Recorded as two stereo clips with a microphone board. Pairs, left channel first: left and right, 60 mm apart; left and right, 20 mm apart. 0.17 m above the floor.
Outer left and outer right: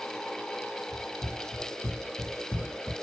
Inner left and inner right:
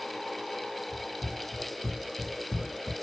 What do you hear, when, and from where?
0.9 s running footsteps: 85° left, 1.5 m; by 2.9 s 5° left (ahead or behind), 0.7 m